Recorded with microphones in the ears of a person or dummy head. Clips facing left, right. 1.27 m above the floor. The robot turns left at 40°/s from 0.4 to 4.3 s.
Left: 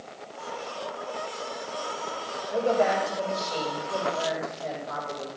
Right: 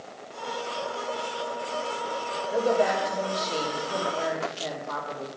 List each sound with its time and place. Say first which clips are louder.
2.5 s a woman speaking: even; 25° right, 3 m; by 5.3 s 100° right, 3 m